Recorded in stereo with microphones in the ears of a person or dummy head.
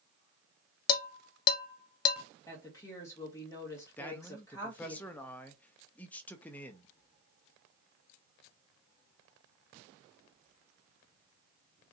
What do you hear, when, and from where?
0.9 s dishes clattering: 25° left (ahead or behind), 0.5 m
2.5 s a woman speaking: 15° left (ahead or behind), 1.8 m
4.0 s a man speaking: 10° left (ahead or behind), 0.5 m